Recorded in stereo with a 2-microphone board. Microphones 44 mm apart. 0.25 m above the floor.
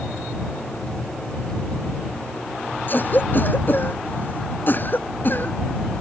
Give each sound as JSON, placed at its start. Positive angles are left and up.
{"t": 2.9, "sound": "a cough", "side_deg": 50}